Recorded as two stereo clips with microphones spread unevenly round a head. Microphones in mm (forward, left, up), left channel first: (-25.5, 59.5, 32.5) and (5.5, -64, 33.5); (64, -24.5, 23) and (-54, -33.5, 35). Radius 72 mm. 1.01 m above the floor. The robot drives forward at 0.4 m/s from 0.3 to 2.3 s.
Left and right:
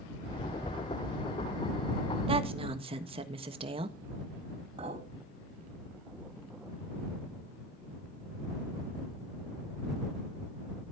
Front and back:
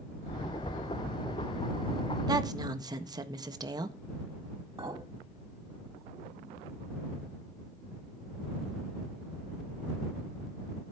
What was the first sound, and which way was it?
A woman speaking, 120° right.